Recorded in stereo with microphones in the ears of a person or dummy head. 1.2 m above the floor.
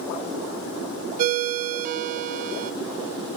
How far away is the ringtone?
About 0.5 m.